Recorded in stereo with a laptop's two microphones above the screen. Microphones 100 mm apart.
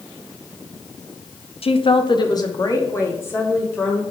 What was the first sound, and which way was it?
A woman speaking, 75° left (ahead or behind).